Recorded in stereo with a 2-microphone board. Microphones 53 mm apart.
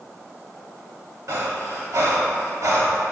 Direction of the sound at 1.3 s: 70° right (ahead or behind).